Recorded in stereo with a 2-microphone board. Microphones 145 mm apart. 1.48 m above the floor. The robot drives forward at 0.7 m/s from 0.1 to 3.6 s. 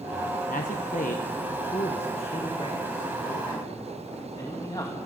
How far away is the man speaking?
About 1.3 m.